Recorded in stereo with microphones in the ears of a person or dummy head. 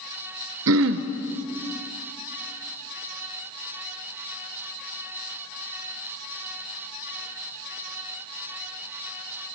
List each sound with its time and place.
0.7 s throat clearing: 65° right (ahead or behind), 0.7 m